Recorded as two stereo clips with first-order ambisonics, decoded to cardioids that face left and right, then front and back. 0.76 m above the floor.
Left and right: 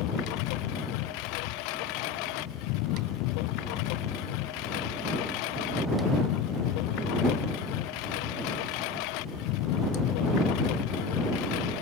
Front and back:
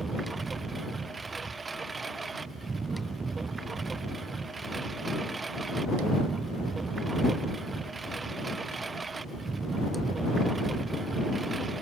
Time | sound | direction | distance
0.0 | a lawn mower | 105° left | ?